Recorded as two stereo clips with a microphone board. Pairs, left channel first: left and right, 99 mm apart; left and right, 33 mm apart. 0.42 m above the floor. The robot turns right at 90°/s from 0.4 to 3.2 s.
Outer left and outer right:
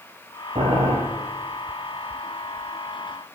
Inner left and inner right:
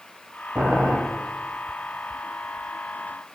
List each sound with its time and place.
0.6 s boiling: 115° right, 9 m; by 1.0 s 80° right, 9 m